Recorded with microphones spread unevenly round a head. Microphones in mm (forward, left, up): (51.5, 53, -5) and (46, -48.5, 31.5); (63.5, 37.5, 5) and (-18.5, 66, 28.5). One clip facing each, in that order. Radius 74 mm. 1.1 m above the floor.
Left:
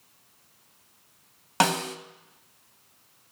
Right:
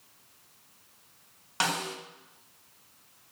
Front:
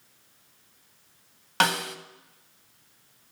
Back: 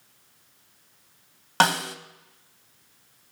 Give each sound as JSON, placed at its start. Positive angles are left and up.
{"t": 1.6, "sound": "a snare drum", "azimuth_deg": 100, "distance_m": 1.5}